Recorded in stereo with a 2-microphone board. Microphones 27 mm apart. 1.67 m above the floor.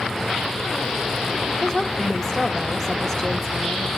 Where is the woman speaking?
20° left (ahead or behind), 3 m.